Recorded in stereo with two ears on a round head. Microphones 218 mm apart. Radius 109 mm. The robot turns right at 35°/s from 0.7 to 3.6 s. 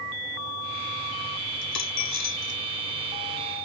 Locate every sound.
1.6 s a dropped coin: 75° left (ahead or behind); by 2.6 s 70° left (ahead or behind)